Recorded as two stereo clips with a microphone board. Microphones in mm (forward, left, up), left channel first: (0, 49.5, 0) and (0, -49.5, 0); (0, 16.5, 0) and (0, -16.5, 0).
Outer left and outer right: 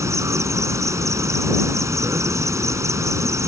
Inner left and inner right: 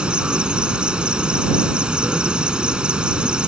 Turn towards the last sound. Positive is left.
turn(degrees=-30)  # may be behind; listen again after turning